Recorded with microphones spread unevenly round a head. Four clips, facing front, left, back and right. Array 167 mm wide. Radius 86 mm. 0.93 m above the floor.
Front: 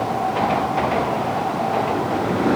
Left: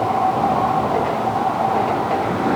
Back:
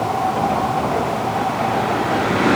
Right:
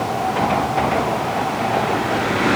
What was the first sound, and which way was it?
Only background noise.